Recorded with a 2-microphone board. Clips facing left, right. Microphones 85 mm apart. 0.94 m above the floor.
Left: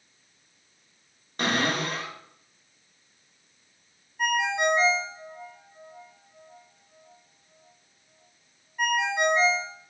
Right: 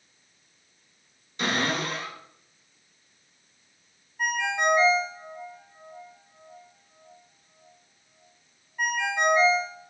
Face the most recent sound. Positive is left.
turn(degrees=5)  # may be behind; listen again after turning